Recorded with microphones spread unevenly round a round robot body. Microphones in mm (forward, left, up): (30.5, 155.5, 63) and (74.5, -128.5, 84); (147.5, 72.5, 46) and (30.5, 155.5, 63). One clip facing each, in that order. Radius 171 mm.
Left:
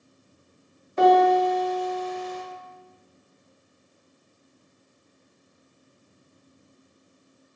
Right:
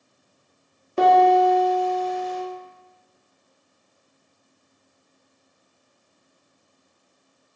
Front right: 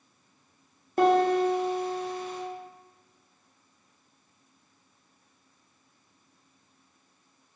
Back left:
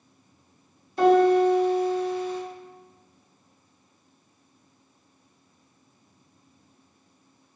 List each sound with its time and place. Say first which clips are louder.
1.0 s a piano: right 1 dB, back left 4 dB; 30° right, 0.8 m